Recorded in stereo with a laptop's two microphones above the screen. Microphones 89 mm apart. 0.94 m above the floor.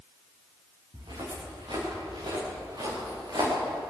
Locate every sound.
0.9 s footsteps: 60° right (ahead or behind), 9.5 m; by 3.5 s 55° right (ahead or behind), 8 m